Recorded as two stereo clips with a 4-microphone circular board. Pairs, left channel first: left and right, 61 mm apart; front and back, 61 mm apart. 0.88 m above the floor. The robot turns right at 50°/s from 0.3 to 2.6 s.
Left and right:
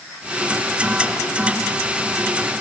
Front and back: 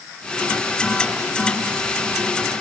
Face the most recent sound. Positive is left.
No sound to turn to.